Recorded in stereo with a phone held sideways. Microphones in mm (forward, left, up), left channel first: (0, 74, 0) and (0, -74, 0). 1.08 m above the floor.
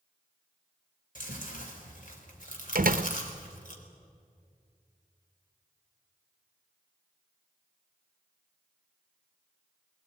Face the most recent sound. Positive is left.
turn(degrees=-70)  # may be behind; listen again after turning